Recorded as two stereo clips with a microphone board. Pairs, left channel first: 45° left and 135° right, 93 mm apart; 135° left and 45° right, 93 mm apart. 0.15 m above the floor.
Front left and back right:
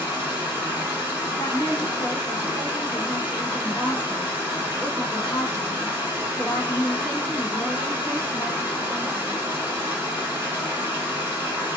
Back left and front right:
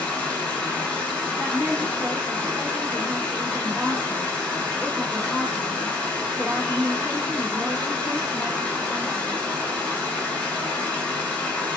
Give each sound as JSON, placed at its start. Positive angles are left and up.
{"t": 0.0, "sound": "running water", "azimuth_deg": -170, "distance_m": 0.9}
{"t": 1.4, "sound": "a woman speaking", "azimuth_deg": 10, "distance_m": 1.1}